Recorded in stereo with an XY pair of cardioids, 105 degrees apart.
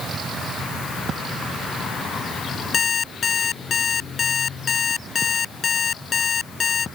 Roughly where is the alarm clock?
Ahead left.